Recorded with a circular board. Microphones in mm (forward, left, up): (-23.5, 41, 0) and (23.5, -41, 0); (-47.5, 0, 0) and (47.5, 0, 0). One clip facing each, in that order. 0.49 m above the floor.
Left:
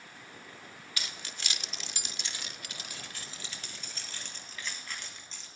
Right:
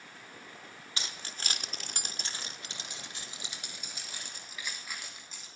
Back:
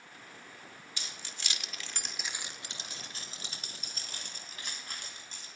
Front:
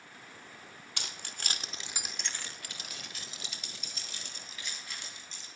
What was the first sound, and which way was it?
Keys jangling, straight ahead.